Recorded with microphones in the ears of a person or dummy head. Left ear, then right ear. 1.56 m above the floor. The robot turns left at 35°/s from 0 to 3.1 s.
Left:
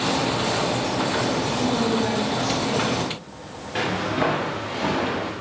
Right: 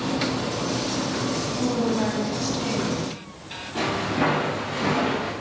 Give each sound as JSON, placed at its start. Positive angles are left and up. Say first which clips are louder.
{"t": 1.6, "sound": "a woman speaking", "louder": "left 2 dB", "azimuth_deg": -15, "distance_m": 3.0}
{"t": 3.8, "sound": "footsteps", "louder": "left 1 dB", "side_deg": 10, "distance_m": 1.6}